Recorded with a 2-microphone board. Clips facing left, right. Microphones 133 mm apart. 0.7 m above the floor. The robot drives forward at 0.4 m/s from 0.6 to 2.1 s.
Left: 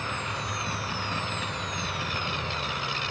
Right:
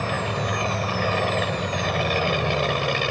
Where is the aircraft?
65° right (ahead or behind).